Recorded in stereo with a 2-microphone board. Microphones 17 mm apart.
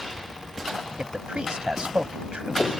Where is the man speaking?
60° right (ahead or behind).